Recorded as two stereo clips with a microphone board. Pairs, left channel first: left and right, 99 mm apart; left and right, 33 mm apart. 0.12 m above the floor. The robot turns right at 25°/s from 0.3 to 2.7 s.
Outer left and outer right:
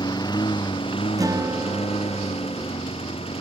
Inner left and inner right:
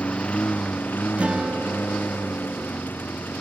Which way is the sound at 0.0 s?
45° left (ahead or behind).